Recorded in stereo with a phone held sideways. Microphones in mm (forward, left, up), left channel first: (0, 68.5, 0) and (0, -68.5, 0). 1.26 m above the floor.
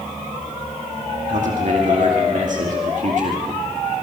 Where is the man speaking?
65° right (ahead or behind), 2.5 m.